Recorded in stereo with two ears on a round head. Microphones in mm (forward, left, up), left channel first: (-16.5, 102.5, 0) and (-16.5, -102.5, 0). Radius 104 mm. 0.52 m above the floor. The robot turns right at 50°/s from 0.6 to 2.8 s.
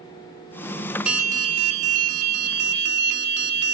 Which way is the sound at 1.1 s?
170° right.